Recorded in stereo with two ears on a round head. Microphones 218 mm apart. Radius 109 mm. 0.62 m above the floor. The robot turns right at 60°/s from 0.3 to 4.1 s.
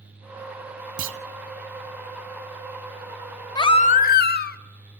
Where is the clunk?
55° right (ahead or behind), 0.7 m.